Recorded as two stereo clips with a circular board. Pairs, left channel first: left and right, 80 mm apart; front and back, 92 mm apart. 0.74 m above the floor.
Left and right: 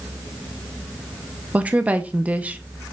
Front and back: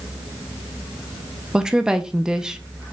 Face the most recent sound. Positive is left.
turn(degrees=-115)